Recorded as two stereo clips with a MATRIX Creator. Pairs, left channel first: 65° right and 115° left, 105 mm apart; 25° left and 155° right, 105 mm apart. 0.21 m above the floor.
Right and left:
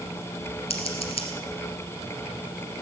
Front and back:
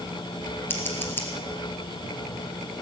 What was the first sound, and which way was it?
Scissors, 45° right.